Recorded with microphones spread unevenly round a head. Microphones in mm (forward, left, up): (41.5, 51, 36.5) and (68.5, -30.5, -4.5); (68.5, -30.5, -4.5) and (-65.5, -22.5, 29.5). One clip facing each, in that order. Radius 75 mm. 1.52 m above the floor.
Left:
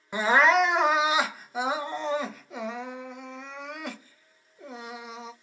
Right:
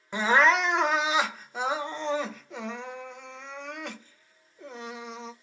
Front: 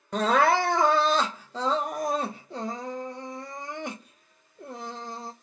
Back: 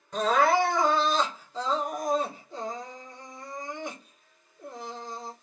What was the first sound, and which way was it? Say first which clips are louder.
Crying: left 1 dB, front 1 dB; 15° left.